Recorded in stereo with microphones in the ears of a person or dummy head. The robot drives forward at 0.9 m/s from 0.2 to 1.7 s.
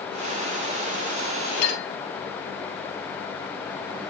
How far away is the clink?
About 2 m.